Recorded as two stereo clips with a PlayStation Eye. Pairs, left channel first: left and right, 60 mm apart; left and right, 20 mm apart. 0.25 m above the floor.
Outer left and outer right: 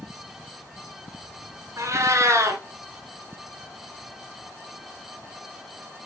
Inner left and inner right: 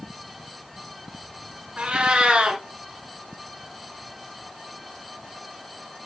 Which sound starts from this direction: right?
A cat meowing, at 1.8 s.